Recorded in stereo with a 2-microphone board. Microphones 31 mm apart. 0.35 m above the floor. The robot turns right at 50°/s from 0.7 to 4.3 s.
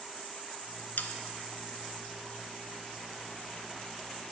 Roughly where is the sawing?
Left.